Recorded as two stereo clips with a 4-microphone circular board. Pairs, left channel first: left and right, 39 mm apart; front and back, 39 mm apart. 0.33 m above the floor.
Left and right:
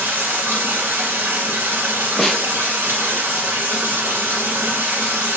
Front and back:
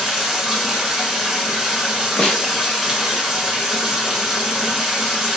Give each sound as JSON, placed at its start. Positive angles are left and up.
{"t": 0.0, "sound": "running water", "azimuth_deg": -95, "distance_m": 1.0}
{"t": 2.2, "sound": "a snare drum", "azimuth_deg": 15, "distance_m": 0.8}